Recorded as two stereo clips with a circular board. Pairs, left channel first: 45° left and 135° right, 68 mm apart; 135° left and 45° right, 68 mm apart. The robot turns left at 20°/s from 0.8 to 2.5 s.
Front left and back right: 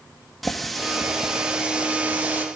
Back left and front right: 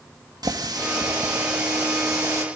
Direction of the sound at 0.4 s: 45° right.